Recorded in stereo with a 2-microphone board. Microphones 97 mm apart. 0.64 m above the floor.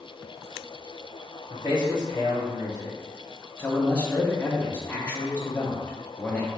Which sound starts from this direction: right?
A man speaking, at 1.5 s.